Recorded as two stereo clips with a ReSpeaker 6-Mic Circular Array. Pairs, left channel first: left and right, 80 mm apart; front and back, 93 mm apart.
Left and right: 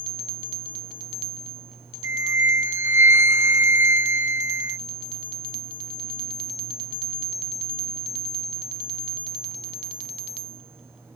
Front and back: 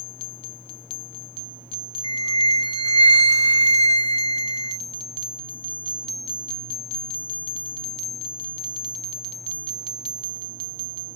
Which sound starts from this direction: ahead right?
A flute, at 2.0 s.